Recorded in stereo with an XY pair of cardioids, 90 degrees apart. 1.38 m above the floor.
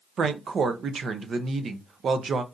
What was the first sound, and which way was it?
A woman speaking, 55° right.